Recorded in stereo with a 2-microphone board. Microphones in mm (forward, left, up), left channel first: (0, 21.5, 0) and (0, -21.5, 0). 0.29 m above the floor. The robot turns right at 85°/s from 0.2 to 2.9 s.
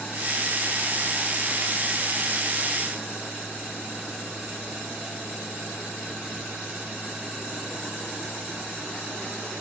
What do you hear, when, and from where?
Only background noise.